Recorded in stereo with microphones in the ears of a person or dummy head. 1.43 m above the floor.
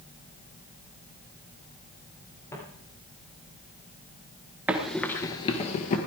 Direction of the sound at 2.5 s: 15° left (ahead or behind).